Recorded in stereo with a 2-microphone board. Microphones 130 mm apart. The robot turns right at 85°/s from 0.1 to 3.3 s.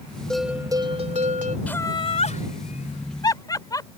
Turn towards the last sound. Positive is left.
turn(degrees=30)  # may be behind; listen again after turning